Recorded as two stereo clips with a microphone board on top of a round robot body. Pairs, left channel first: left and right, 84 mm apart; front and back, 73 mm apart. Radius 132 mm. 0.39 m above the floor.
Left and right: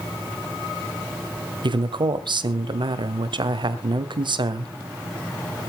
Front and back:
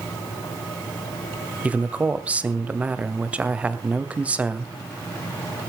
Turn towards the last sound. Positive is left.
turn(degrees=-110)